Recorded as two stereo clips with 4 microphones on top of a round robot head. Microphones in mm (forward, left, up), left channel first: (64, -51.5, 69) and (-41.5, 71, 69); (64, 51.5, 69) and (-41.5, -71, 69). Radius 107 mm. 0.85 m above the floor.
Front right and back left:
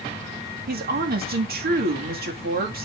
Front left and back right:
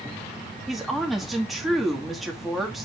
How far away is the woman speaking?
About 2.0 m.